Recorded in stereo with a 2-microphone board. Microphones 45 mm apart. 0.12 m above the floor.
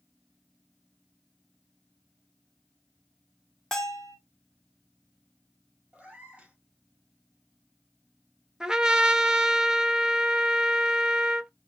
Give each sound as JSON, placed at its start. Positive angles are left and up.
{"t": 3.7, "sound": "a bell", "side_deg": 10, "distance_m": 1.5}
{"t": 5.9, "sound": "a cat meowing", "side_deg": -25, "distance_m": 1.4}
{"t": 8.6, "sound": "a trumpet", "side_deg": -15, "distance_m": 0.6}